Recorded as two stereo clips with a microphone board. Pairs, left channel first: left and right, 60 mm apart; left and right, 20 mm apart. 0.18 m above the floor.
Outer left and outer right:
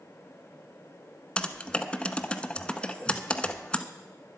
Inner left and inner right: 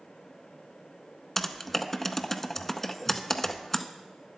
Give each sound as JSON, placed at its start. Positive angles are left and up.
{"t": 1.4, "sound": "typing on a keyboard", "side_deg": 15, "distance_m": 0.7}